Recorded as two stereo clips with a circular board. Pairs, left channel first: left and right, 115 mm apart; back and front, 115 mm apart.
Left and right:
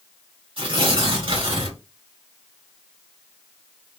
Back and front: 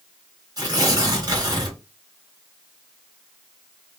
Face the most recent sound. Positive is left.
turn(degrees=-55)